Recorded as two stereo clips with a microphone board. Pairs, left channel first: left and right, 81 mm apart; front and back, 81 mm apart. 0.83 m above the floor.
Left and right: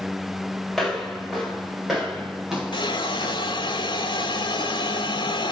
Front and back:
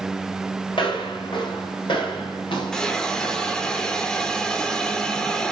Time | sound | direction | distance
0.7 | footsteps | straight ahead | 8 m
2.7 | a hiss | 80° left | 1.8 m